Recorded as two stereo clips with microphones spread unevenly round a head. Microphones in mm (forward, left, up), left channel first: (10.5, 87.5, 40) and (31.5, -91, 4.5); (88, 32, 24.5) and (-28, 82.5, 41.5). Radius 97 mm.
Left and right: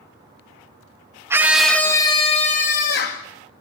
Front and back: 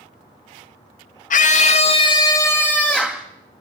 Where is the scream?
5° right, 1.3 m; by 3.2 s 70° left, 1.8 m.